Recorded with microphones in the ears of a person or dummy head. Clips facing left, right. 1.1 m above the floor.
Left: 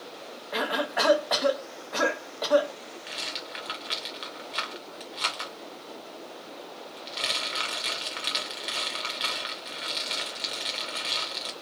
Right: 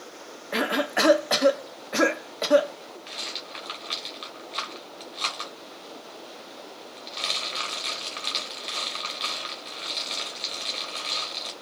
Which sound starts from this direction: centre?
A rattle, at 3.1 s.